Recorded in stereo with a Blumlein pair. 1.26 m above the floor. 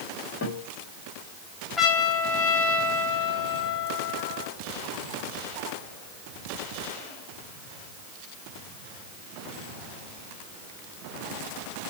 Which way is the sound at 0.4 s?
50° left.